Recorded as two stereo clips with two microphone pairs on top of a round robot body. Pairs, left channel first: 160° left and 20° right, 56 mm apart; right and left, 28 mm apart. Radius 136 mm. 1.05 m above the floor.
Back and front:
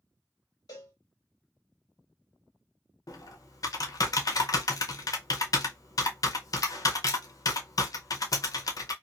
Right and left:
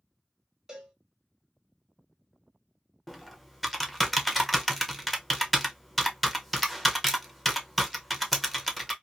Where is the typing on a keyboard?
Straight behind, 0.6 m.